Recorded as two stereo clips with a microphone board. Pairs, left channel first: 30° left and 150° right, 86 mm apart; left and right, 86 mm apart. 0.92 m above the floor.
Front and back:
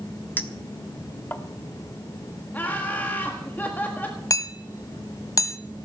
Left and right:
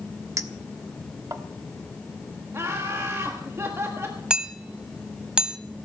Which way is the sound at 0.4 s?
35° right.